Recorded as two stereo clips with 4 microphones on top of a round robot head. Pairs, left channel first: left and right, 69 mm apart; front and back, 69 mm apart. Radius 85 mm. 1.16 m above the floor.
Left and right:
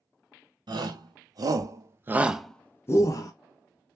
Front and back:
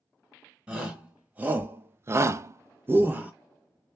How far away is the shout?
About 1.3 m.